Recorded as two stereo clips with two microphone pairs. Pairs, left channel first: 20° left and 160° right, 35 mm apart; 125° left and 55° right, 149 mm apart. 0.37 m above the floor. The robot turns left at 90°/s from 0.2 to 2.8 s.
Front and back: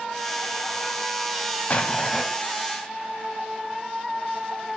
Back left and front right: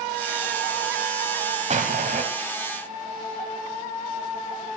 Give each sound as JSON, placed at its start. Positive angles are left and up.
{"t": 1.7, "sound": "an explosion", "azimuth_deg": -25, "distance_m": 1.8}